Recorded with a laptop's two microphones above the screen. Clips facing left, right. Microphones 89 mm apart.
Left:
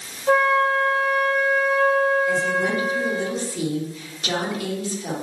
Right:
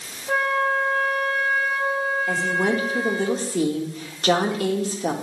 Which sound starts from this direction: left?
A flute, at 0.3 s.